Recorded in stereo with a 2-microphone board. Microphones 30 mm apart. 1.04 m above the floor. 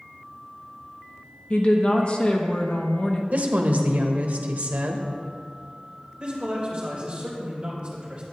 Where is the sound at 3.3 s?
65° right (ahead or behind), 1.2 m.